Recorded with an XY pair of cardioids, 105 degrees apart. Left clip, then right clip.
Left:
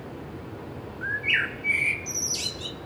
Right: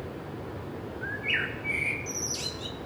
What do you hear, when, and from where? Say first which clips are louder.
1.0 s a bird: left 5 dB; 35° left, 0.9 m